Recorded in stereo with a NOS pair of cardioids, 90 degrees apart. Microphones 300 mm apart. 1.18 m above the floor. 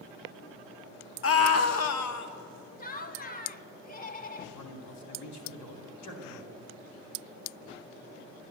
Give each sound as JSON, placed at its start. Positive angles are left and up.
{"t": 1.2, "sound": "a scream", "azimuth_deg": 45, "distance_m": 1.1}
{"t": 2.8, "sound": "laughter", "azimuth_deg": 30, "distance_m": 1.0}
{"t": 4.5, "sound": "a man speaking", "azimuth_deg": 65, "distance_m": 2.5}